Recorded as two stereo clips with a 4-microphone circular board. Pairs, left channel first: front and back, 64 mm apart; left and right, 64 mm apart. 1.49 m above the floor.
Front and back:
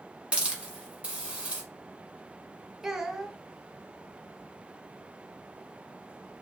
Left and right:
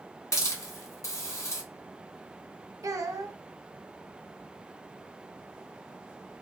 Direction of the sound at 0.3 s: 110° left.